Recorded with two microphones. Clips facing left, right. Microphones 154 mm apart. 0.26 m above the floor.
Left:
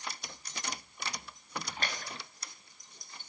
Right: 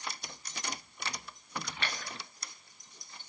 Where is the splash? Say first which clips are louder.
Left 1 dB; 40° left (ahead or behind), 4.5 m.